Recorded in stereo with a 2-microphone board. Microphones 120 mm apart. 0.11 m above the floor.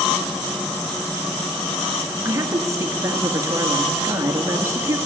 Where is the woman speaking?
25° right (ahead or behind), 1.6 m.